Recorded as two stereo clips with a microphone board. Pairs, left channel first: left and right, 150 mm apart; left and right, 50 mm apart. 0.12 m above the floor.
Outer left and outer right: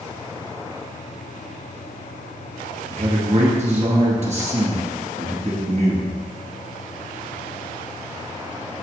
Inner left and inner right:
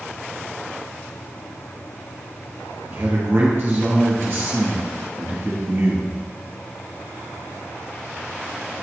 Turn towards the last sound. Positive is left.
turn(degrees=-50)  # may be behind; listen again after turning